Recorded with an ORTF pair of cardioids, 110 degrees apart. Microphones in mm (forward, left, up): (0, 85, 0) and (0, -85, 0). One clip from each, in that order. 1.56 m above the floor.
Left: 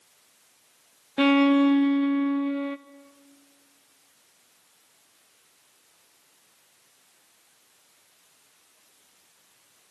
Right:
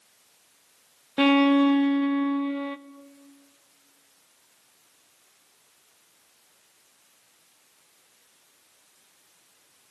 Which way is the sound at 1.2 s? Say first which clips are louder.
Even; 5° right.